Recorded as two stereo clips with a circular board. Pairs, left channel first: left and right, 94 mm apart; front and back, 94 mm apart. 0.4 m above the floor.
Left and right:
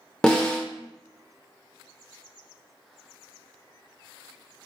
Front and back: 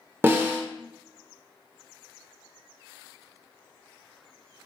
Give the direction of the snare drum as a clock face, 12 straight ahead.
7 o'clock.